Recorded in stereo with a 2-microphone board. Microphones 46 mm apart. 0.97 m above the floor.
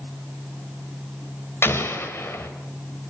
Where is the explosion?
55° left (ahead or behind), 2.5 m.